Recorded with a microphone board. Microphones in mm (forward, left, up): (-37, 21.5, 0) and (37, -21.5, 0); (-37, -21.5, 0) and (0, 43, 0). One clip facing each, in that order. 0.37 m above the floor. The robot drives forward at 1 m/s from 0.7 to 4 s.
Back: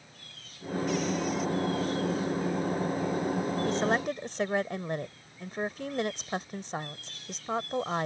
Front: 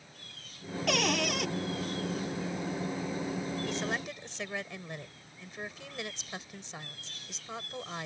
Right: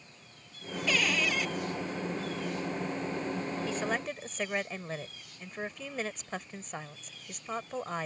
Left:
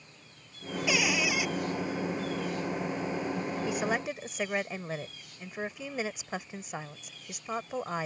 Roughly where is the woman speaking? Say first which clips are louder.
Back 7 dB, left 3 dB; behind left.